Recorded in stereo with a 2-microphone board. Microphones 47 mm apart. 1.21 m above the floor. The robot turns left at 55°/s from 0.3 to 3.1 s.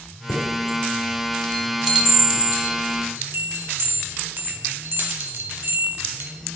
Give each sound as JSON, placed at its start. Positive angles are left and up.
{"t": 0.3, "sound": "a chime", "side_deg": 50, "distance_m": 1.6}